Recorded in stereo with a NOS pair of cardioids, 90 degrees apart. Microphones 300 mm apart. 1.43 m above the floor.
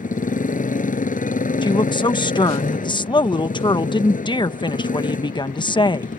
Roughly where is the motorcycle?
Ahead left.